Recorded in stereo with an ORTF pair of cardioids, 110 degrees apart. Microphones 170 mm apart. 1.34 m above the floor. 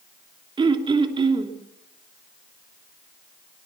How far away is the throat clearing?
About 3 m.